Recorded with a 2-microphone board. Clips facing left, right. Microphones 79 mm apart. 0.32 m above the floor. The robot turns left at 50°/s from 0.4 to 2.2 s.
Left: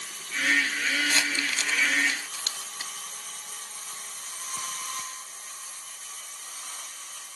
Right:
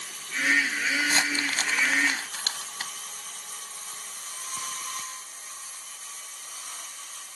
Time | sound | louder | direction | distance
1.0 | crumpling | right 1 dB | 25° right (ahead or behind) | ?